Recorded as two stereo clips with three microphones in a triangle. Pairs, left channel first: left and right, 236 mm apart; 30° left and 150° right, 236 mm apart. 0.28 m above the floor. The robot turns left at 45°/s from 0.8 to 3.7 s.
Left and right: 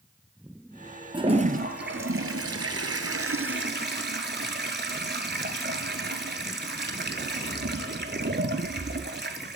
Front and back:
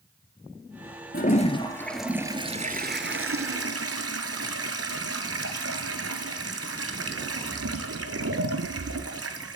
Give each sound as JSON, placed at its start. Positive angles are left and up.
{"t": 1.1, "sound": "a toilet flushing", "azimuth_deg": -20, "distance_m": 0.7}